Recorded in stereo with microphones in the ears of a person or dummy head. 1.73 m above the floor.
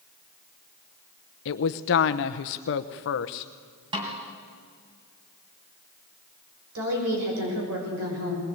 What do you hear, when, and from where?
1.4 s a woman speaking: 45° left (ahead or behind), 0.9 m
3.9 s a snare drum: 25° right (ahead or behind), 3 m
6.8 s a woman speaking: 75° right (ahead or behind), 7 m